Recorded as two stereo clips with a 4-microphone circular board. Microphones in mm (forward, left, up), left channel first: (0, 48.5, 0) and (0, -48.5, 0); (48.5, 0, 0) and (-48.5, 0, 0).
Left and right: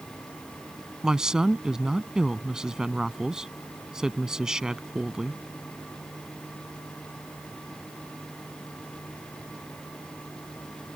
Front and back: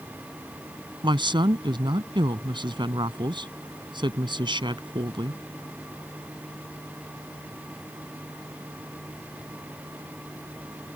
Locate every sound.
1.0 s a woman speaking: 170° right